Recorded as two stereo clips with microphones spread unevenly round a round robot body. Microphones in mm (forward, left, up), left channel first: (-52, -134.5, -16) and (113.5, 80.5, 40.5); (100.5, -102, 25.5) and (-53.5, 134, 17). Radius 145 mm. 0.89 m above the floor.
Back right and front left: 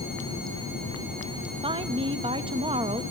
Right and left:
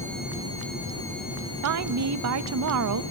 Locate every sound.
1.6 s a woman speaking: 130° left, 0.9 m